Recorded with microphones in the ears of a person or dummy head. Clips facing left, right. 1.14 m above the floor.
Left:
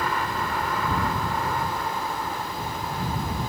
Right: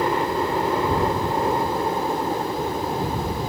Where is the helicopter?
25° right (ahead or behind); by 3.5 s 30° right (ahead or behind).